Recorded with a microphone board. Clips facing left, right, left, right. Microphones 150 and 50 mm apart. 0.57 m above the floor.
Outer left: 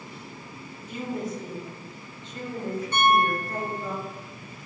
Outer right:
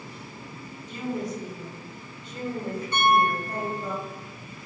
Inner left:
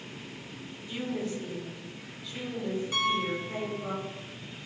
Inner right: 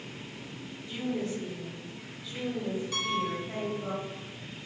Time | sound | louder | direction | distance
0.9 | a woman speaking | outer right 1 dB, inner right 1 dB | 10° left (ahead or behind) | 0.6 m
2.9 | a piano | even, inner left 4 dB | 20° left (ahead or behind) | 1.0 m